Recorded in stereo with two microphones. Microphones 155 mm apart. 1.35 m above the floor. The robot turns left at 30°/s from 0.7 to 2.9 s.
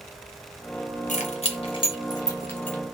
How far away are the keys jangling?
About 0.7 m.